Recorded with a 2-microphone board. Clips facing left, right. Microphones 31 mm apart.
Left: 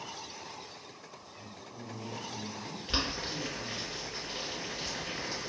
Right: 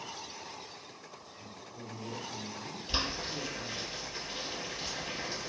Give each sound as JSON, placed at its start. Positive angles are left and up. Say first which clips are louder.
{"t": 1.3, "sound": "a woman speaking", "louder": "left 2 dB", "side_deg": 50, "distance_m": 1.9}
{"t": 2.9, "sound": "boiling", "louder": "left 1 dB", "side_deg": 60, "distance_m": 1.9}